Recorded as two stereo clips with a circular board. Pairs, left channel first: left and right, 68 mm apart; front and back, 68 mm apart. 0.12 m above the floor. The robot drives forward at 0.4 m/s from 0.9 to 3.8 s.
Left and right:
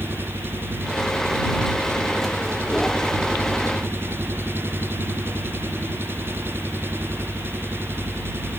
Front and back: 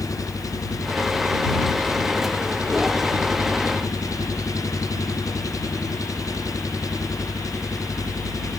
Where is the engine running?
30° right.